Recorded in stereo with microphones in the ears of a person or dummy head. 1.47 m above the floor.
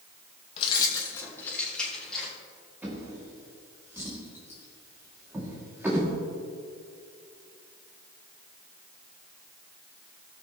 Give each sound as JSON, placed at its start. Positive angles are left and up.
{"t": 0.6, "sound": "keys jangling", "side_deg": 30, "distance_m": 1.1}
{"t": 2.8, "sound": "a drawer", "side_deg": -10, "distance_m": 2.0}